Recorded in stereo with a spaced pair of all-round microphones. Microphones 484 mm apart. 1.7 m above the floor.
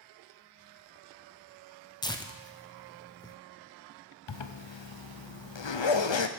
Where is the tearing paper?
10° left (ahead or behind), 0.7 m.